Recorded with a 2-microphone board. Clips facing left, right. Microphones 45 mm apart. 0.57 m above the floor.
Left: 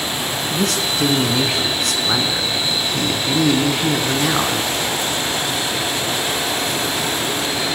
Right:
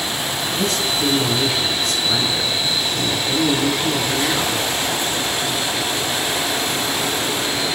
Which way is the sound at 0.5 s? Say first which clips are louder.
Left 1 dB; 60° left (ahead or behind).